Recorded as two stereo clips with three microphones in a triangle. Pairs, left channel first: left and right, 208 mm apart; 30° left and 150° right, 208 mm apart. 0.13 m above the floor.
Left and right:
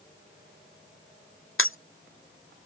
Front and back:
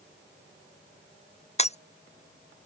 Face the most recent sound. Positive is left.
turn(degrees=90)